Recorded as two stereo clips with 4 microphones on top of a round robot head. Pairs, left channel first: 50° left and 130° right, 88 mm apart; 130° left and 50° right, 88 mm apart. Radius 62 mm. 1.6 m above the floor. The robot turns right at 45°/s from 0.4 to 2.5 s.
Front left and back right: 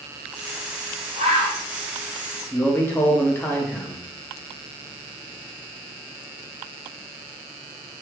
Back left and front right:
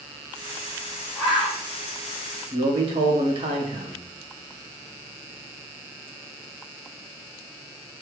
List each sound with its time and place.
1.1 s a bird: 145° right, 1.2 m; by 1.6 s 125° right, 1.2 m
2.5 s a man speaking: 20° right, 1.0 m